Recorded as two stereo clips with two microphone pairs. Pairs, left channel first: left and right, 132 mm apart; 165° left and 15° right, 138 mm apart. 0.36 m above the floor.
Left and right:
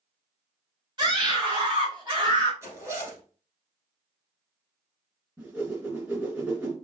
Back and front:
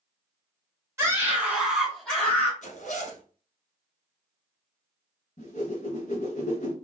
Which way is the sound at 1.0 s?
65° right.